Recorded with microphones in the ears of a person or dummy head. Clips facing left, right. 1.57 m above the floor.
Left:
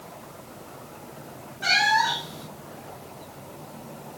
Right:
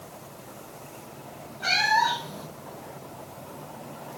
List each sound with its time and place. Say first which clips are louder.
1.6 s a cat meowing: left 1 dB; 15° left (ahead or behind), 2 m